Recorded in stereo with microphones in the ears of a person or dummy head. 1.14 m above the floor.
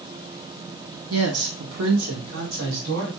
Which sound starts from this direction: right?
A woman speaking, at 1.1 s.